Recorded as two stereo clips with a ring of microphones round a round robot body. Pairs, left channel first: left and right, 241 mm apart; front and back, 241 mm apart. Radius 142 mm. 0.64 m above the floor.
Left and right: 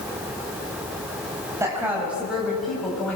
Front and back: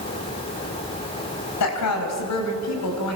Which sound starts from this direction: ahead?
A woman speaking, at 1.6 s.